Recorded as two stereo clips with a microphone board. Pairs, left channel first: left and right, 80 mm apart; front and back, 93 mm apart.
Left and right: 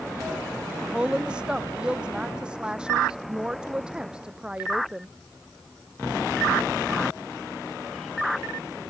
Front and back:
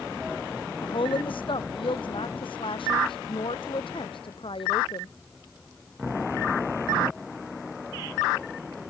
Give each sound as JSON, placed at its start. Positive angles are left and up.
{"t": 0.8, "sound": "a woman speaking", "azimuth_deg": -10}